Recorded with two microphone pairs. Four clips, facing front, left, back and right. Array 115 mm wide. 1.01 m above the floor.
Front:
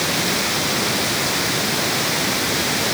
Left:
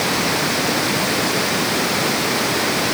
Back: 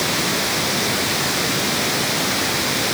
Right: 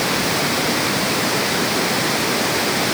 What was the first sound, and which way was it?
Only background noise.